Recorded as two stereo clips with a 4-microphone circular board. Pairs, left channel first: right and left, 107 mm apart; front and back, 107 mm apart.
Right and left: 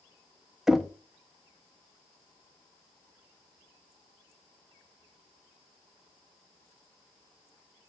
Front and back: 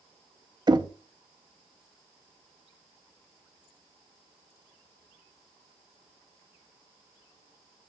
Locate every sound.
0.7 s knocking: 175° left, 0.6 m